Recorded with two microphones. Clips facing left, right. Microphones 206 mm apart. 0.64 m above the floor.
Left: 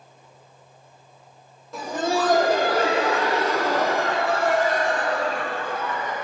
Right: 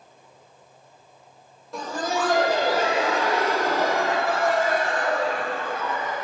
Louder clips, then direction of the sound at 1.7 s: Left 3 dB; centre (ahead or behind).